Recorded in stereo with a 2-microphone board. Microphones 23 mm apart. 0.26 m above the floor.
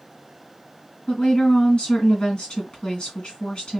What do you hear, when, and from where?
1.1 s a woman speaking: 55° left (ahead or behind), 2 m